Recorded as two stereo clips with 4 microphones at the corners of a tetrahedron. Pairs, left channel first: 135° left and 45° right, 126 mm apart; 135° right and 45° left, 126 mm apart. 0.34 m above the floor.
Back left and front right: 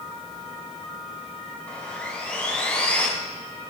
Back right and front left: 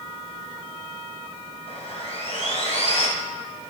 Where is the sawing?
150° right, 2.5 m.